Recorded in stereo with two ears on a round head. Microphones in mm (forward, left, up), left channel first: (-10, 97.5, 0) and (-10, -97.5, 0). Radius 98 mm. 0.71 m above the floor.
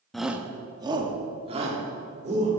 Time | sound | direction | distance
0.1 | a shout | centre (ahead or behind) | 0.6 m